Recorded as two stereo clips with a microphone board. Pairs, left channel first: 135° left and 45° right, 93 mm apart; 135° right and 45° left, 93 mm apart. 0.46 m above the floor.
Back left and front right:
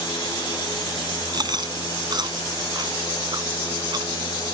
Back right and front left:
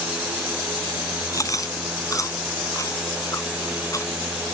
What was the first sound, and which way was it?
Chewing, 85° right.